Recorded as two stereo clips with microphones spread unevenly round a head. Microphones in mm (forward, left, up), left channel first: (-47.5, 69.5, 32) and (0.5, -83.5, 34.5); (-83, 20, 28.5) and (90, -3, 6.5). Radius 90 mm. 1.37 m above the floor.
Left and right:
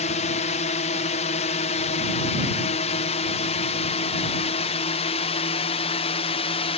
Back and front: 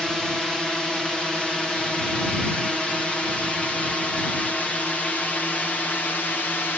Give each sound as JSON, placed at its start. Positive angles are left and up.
{"t": 0.0, "sound": "a drone", "azimuth_deg": 80}